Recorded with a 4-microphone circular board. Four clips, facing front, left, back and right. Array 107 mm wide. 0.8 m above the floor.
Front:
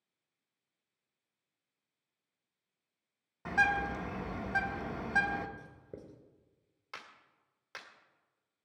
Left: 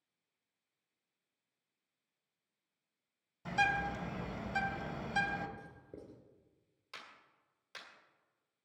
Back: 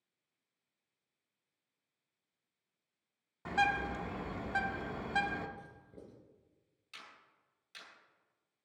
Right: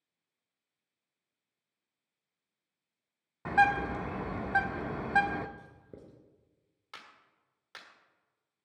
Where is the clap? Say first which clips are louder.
Right 2 dB, front 5 dB; 25° right, 1.8 m.